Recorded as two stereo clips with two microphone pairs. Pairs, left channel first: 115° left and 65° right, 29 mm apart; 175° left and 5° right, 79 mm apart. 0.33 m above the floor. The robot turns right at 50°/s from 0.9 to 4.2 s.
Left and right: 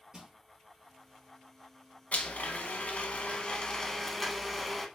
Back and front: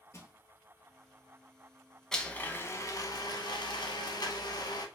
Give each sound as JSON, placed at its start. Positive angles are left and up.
{"t": 0.1, "sound": "crushing", "azimuth_deg": -135, "distance_m": 1.1}
{"t": 2.1, "sound": "a blender", "azimuth_deg": 95, "distance_m": 0.7}